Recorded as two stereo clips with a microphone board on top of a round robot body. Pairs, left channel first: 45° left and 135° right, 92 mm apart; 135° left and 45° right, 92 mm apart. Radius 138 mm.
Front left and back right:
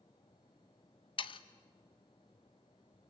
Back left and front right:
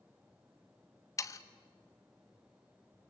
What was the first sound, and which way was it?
Sawing, 75° left.